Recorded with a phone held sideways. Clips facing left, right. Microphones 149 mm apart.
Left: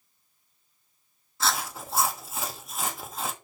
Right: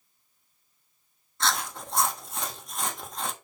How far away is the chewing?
About 0.9 m.